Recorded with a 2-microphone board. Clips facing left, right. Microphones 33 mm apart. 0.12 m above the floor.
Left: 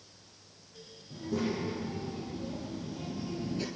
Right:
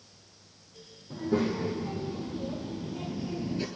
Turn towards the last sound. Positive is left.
turn(degrees=-10)  # may be behind; listen again after turning